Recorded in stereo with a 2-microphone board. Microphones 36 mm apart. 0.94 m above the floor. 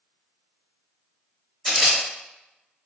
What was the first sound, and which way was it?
A camera shutter, 5° left (ahead or behind).